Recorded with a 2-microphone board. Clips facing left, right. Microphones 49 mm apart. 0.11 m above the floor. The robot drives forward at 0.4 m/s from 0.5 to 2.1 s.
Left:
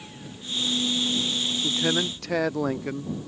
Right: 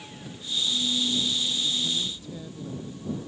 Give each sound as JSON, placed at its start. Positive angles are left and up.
{"t": 1.6, "sound": "a man speaking", "side_deg": 85}